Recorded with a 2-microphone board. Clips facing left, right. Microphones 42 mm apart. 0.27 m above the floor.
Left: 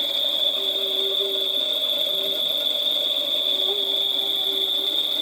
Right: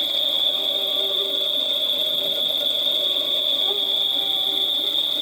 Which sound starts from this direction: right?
An insect, at 0.0 s.